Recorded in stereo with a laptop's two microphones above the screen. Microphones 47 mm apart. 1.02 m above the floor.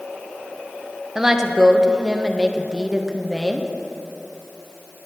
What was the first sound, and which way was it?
A woman speaking, 10° right (ahead or behind).